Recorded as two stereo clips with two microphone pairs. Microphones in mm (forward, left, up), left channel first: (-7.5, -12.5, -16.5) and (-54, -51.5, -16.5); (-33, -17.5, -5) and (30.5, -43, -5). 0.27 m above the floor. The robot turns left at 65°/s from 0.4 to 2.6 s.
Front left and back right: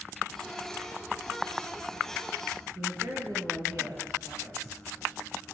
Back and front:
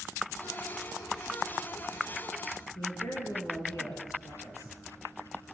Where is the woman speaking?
175° right, 6 m.